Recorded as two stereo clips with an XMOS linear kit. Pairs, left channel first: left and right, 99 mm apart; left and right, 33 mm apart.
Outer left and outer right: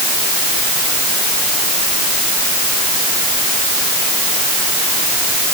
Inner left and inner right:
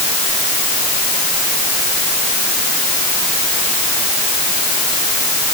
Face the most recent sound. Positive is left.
No sound to turn to.